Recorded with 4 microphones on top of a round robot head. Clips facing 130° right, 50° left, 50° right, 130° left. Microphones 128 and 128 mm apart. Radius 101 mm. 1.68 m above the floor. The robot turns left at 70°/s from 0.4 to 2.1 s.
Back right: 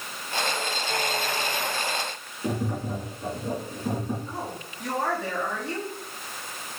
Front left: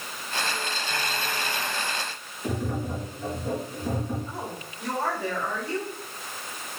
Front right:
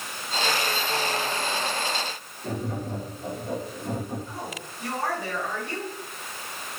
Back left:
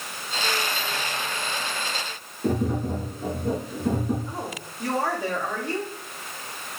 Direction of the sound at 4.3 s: 135° left.